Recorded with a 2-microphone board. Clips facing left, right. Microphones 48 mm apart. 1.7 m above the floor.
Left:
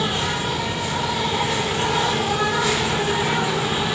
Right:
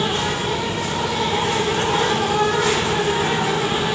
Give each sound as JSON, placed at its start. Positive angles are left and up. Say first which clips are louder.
{"t": 0.0, "sound": "an insect", "louder": "right 2 dB", "side_deg": -45, "distance_m": 4.0}